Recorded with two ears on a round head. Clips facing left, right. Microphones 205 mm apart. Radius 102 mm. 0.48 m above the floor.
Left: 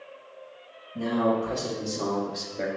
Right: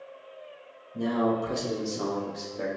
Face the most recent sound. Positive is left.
turn(degrees=35)  # may be behind; listen again after turning